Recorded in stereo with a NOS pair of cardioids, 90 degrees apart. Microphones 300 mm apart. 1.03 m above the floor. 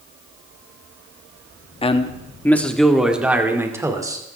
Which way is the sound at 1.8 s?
20° left.